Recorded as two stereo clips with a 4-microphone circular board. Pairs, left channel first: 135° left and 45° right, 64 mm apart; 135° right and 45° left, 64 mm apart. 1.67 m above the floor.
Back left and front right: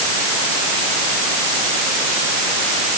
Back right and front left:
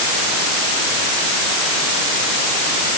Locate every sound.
Only background noise.